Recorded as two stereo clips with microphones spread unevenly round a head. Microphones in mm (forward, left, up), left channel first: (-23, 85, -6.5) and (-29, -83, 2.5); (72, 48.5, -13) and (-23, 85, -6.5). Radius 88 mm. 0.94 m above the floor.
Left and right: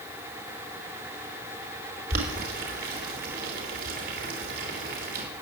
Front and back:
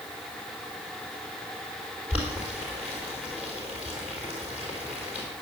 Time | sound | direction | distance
2.1 | boiling | 115° right | 4 m